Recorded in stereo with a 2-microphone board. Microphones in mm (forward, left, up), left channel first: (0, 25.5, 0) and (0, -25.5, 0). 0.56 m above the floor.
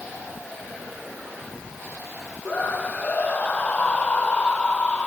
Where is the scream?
30° left (ahead or behind); by 5.1 s 25° left (ahead or behind).